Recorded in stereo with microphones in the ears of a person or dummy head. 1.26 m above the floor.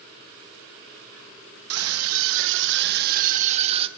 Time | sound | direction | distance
1.7 | a scream | 75° right (ahead or behind) | 1.3 m